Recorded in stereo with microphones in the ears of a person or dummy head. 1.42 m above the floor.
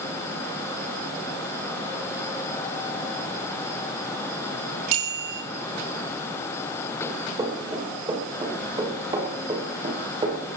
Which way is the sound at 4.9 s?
50° right (ahead or behind).